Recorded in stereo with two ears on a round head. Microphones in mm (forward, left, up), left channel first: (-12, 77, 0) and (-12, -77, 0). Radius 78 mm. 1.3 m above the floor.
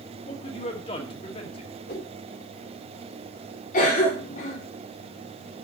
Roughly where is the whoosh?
Left.